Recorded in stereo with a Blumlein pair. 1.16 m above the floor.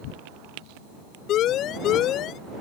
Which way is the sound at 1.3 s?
35° left.